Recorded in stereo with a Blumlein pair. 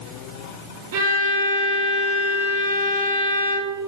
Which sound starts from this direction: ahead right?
A violin, at 0.9 s.